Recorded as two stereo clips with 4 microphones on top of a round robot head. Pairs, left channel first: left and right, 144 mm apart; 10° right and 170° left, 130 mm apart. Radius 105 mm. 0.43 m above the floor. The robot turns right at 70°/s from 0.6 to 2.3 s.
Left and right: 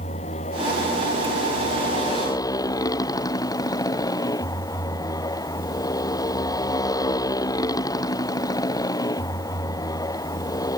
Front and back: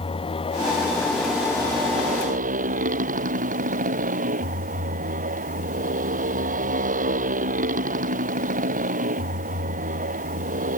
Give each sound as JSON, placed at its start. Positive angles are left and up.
{"t": 0.0, "sound": "a motorcycle", "azimuth_deg": 35}